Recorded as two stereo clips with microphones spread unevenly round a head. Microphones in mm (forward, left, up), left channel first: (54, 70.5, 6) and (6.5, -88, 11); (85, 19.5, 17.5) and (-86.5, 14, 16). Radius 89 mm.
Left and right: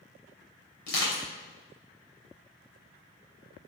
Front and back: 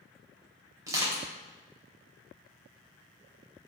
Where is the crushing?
110° left, 3 m.